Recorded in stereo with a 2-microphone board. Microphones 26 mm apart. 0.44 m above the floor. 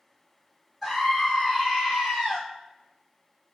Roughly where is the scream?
Centre.